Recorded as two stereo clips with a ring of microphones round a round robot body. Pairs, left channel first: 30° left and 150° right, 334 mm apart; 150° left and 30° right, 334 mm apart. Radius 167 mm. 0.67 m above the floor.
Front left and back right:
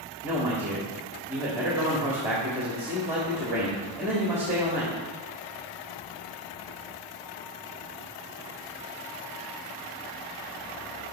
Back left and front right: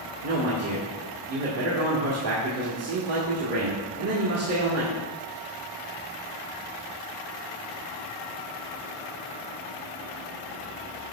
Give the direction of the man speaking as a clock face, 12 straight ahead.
2 o'clock.